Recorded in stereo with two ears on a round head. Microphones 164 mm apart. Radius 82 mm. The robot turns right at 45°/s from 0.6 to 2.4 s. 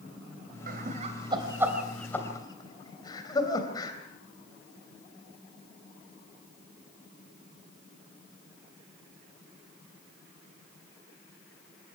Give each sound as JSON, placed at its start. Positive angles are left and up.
{"t": 0.7, "sound": "laughter", "side_deg": -55, "distance_m": 3.0}